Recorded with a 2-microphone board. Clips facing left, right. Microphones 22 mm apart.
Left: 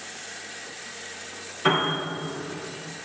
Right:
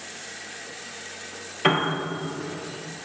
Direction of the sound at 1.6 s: 35° right (ahead or behind).